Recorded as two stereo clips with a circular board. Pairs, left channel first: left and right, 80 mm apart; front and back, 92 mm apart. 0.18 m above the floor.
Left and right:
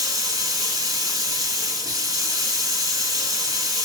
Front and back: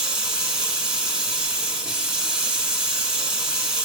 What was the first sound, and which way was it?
Running water, 100° right.